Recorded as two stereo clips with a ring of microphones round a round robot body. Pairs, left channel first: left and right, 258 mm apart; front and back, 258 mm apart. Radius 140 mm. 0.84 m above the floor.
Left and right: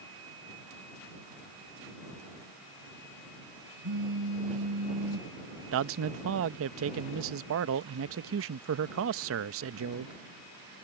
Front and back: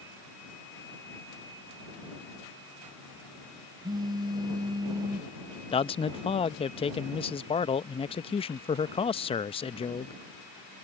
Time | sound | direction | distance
3.8 | a phone buzzing | 105° right | ?
5.7 | a man speaking | 65° right | ?